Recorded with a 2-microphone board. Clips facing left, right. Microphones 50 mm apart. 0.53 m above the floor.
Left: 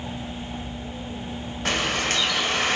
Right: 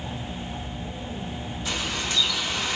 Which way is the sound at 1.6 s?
60° left (ahead or behind).